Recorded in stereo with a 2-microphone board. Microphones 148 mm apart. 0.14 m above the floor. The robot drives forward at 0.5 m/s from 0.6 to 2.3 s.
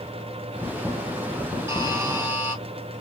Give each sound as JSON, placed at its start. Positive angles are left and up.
{"t": 1.7, "sound": "a buzzer", "side_deg": -20, "distance_m": 1.0}